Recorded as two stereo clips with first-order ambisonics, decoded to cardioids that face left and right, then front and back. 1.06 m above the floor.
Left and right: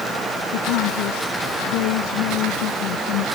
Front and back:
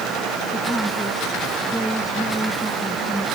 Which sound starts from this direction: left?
A woman speaking, at 0.5 s.